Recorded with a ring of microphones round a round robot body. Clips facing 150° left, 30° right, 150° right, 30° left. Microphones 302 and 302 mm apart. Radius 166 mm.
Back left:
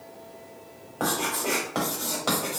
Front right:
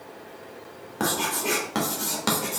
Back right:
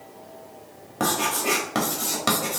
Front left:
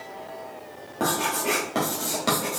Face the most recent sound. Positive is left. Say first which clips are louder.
# front right 1 dB, even
turn(degrees=-80)